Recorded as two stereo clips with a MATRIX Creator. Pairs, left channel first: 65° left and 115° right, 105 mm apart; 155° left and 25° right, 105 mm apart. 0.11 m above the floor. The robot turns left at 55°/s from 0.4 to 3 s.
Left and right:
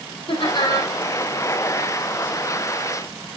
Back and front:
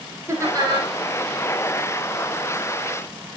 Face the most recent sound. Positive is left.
turn(degrees=-105)